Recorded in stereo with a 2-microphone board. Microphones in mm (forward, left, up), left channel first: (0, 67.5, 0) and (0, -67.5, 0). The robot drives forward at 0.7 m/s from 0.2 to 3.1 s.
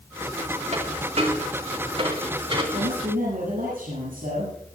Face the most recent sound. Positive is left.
turn(degrees=-80)